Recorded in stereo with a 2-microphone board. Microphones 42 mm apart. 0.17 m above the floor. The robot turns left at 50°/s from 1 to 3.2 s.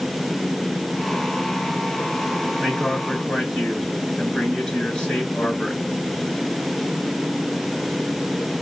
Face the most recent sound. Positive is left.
turn(degrees=155)